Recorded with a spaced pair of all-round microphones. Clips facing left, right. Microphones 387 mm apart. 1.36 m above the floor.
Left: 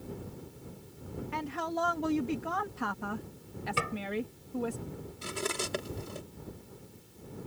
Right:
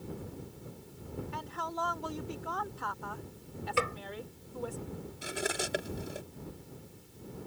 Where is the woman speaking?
80° left.